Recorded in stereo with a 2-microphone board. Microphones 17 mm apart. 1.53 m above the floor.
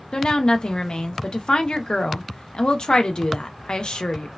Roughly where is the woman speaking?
Left.